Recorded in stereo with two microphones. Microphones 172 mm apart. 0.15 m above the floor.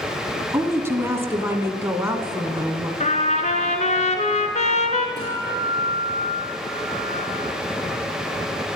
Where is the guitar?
75° left (ahead or behind), 6 m.